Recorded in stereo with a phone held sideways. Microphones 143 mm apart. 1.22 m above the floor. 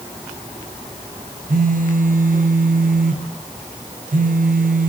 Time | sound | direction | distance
1.5 | a phone buzzing | 70° right (ahead or behind) | 0.8 m